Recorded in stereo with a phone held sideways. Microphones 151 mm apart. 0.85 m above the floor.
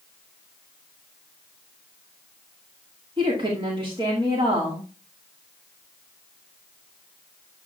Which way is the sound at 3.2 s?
35° right (ahead or behind).